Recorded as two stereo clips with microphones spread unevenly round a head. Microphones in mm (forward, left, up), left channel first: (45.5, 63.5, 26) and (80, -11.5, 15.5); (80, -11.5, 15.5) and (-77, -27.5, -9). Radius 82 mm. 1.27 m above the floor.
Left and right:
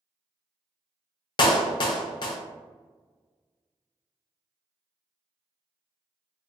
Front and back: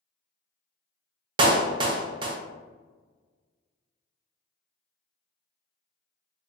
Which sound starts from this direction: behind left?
A clap, at 1.4 s.